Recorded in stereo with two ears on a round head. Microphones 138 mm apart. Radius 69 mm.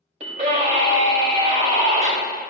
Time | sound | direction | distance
0.2 | a scream | 45° right (ahead or behind) | 2.5 m